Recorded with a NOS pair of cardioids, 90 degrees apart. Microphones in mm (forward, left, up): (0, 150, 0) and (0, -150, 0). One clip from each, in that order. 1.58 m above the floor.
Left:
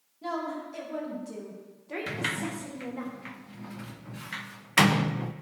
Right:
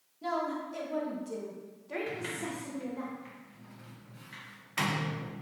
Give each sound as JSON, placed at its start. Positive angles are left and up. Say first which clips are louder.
{"t": 0.2, "sound": "a woman speaking", "louder": "even", "azimuth_deg": 0, "distance_m": 2.5}
{"t": 2.1, "sound": "a sliding door", "louder": "left 5 dB", "azimuth_deg": 55, "distance_m": 0.5}